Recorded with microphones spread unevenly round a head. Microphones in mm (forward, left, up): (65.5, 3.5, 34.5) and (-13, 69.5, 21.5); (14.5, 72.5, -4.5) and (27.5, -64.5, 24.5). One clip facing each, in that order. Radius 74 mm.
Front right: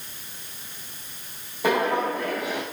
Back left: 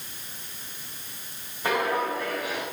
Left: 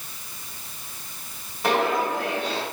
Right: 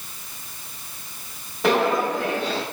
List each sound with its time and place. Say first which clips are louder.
1.6 s footsteps: front right 3 dB, right 3 dB; 85° right, 4 m